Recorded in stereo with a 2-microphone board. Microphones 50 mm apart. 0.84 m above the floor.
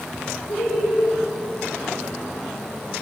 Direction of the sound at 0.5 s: 50° left (ahead or behind).